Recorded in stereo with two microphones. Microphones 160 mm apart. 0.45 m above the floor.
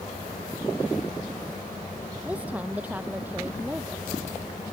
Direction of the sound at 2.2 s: 10° right (ahead or behind).